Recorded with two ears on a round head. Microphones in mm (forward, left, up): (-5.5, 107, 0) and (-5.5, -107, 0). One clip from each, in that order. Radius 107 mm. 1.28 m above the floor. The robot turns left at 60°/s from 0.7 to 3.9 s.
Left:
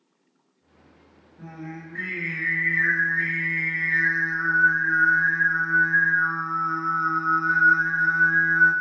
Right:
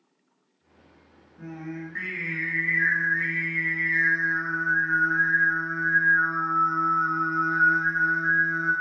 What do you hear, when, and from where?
1.4 s singing: 25° right (ahead or behind), 0.7 m; by 8.7 s 25° left (ahead or behind), 0.7 m